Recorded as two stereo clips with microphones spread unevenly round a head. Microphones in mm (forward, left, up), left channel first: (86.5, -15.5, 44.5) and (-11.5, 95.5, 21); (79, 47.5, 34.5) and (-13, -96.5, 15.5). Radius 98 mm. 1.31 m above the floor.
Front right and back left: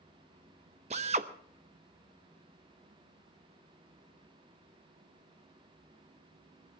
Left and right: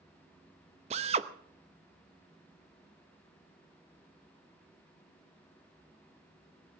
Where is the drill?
175° right, 0.7 m.